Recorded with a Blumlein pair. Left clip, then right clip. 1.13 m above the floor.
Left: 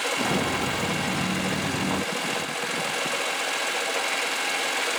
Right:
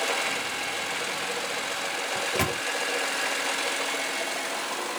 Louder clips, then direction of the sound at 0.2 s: Left 3 dB; 35° left.